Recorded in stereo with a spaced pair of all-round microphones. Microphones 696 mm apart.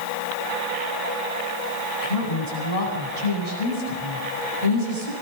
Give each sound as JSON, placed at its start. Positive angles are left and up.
{"t": 2.0, "sound": "a woman speaking", "side_deg": 55, "distance_m": 9.0}